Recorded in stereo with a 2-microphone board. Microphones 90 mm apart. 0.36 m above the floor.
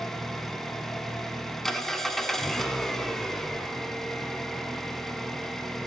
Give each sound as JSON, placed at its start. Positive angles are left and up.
{"t": 0.0, "sound": "an engine running", "side_deg": 5, "distance_m": 0.8}